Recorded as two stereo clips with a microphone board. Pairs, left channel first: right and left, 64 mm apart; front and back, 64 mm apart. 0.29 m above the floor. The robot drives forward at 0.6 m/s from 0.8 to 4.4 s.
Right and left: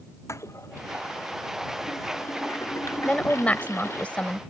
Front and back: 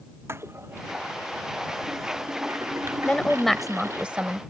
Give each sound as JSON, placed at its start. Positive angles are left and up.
{"t": 0.3, "sound": "a toilet flushing", "azimuth_deg": -130}
{"t": 3.0, "sound": "a woman speaking", "azimuth_deg": -45}